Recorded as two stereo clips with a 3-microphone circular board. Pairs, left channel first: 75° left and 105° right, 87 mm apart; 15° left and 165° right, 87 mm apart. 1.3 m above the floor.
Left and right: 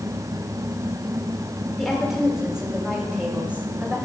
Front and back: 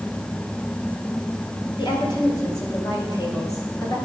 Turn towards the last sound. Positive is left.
turn(degrees=-35)